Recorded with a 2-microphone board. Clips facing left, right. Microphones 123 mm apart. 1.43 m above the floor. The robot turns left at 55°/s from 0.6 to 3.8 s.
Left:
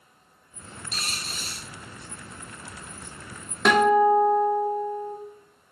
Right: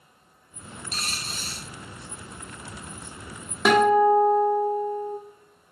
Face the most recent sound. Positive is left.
turn(degrees=-10)  # may be behind; listen again after turning